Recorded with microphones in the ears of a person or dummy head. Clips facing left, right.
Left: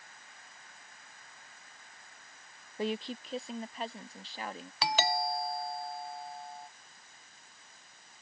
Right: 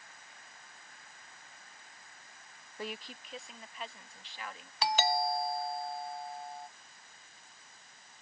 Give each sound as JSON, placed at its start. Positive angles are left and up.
{"t": 2.8, "sound": "a woman speaking", "side_deg": 20}
{"t": 4.8, "sound": "a doorbell", "side_deg": 60}